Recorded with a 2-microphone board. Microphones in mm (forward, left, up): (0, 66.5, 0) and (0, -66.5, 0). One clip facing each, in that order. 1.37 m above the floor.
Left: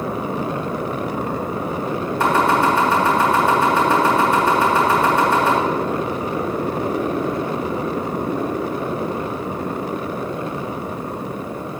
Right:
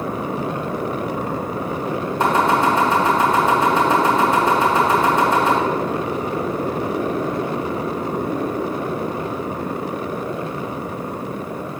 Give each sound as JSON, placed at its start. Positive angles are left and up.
{"t": 2.2, "sound": "chopping", "side_deg": -20, "distance_m": 3.0}